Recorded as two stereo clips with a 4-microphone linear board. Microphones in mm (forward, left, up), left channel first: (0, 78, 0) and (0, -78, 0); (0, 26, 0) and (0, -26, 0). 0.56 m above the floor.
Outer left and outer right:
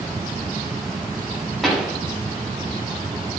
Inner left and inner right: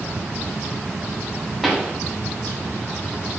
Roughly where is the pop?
Centre.